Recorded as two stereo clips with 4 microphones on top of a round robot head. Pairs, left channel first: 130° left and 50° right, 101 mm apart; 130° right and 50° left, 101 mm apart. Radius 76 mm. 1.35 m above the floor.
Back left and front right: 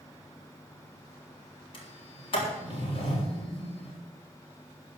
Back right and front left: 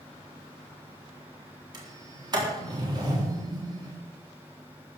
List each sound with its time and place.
1.7 s a sliding door: 95° left, 4 m